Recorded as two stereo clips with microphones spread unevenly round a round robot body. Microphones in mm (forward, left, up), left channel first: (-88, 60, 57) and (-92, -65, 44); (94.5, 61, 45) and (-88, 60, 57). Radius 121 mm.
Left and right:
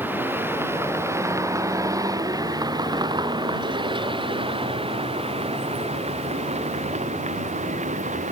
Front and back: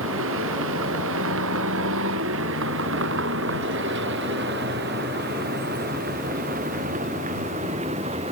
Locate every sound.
0.0 s a vehicle: 165° right; by 8.3 s 115° right